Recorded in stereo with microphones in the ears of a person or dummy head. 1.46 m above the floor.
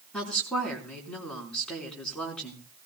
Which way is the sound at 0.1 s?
10° left (ahead or behind).